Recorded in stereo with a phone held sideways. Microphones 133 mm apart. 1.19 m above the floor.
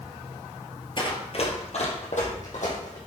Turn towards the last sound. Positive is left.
turn(degrees=70)  # may be behind; listen again after turning